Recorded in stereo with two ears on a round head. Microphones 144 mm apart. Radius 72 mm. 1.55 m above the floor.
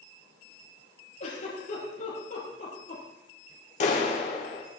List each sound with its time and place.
1.2 s a giggle: 50° left (ahead or behind), 6 m
3.8 s a clap: 50° left (ahead or behind), 3 m